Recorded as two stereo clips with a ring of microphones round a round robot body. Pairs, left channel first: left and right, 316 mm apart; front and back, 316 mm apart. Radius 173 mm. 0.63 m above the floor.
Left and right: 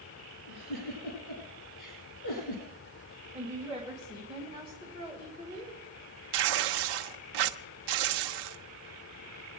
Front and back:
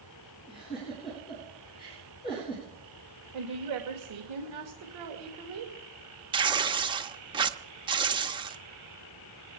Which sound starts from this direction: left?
A giggle, at 0.5 s.